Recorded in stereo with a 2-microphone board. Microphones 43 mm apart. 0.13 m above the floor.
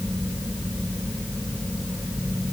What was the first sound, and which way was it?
Only background noise.